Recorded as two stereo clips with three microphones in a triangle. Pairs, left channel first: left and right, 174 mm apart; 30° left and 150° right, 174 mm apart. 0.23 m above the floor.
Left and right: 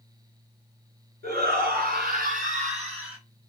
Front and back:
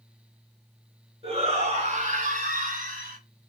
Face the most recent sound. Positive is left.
turn(degrees=-145)